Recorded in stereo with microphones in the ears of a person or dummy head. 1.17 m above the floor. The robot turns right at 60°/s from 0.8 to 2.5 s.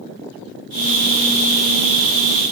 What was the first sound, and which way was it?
Only background noise.